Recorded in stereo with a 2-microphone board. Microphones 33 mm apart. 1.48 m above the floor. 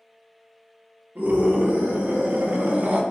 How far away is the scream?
About 2.5 m.